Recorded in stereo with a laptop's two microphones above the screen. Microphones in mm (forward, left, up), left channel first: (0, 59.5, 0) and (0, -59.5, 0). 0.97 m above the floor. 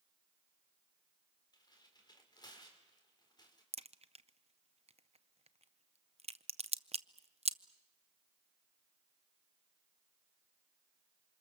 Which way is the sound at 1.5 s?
35° left (ahead or behind).